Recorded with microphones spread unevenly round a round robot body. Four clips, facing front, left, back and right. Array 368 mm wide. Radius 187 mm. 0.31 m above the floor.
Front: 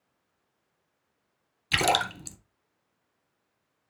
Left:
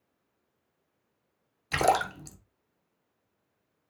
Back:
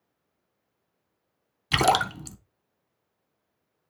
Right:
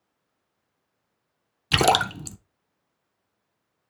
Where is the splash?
110° right, 0.9 m.